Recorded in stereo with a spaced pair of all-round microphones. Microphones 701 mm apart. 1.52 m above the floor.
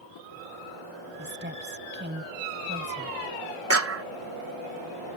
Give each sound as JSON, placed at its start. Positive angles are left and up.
{"t": 1.2, "sound": "a woman speaking", "side_deg": -15}
{"t": 3.7, "sound": "a clap", "side_deg": -20}